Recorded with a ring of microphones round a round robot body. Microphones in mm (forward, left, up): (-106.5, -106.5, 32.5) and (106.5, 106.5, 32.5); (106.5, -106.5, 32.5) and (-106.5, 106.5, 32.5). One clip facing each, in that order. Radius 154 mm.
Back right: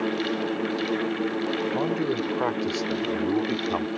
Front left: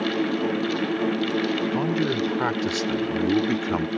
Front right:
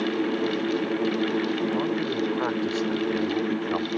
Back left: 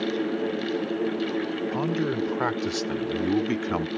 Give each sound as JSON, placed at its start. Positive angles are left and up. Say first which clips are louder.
{"t": 1.7, "sound": "a man speaking", "louder": "front left 2 dB, even", "azimuth_deg": 100}